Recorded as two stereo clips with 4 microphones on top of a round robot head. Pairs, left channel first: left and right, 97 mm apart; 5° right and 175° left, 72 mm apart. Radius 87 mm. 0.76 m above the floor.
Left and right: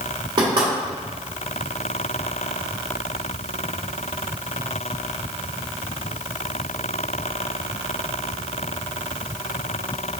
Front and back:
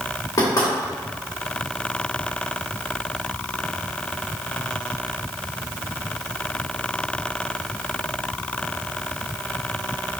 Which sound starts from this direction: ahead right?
Knocking, at 0.4 s.